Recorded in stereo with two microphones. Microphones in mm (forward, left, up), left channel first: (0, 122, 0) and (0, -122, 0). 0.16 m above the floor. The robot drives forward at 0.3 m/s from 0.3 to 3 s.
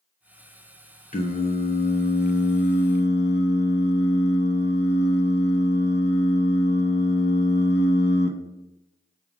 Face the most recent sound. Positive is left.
turn(degrees=45)  # may be behind; listen again after turning